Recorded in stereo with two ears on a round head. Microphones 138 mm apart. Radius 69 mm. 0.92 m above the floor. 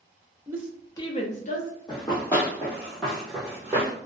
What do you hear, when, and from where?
0.5 s a woman speaking: 20° right (ahead or behind), 0.6 m; by 1.7 s 55° left (ahead or behind), 1.0 m
1.9 s running footsteps: 30° left (ahead or behind), 1.4 m; by 3.9 s 20° right (ahead or behind), 1.2 m